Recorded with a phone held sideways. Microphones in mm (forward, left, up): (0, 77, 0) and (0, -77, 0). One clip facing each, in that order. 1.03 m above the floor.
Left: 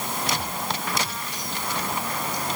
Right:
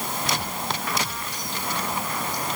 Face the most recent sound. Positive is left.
No sound to turn to.